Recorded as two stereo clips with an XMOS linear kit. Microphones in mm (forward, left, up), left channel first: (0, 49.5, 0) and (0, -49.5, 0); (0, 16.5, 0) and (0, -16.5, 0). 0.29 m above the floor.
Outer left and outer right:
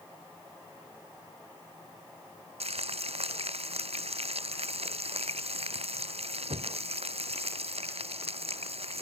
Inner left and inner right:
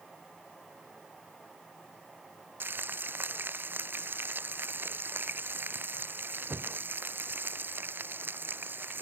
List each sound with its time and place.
2.6 s frying: 85° right